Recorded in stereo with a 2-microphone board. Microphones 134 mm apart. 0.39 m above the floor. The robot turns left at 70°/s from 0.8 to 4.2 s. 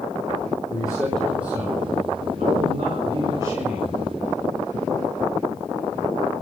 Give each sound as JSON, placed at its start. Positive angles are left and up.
{"t": 0.7, "sound": "a man speaking", "azimuth_deg": 30, "distance_m": 3.5}